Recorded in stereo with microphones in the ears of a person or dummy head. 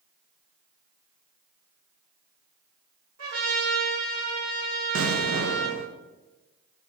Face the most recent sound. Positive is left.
turn(degrees=-70)  # may be behind; listen again after turning